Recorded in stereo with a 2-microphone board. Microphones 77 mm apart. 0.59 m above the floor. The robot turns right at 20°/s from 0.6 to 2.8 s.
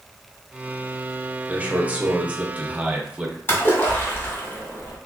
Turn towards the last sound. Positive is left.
turn(degrees=30)  # may be behind; listen again after turning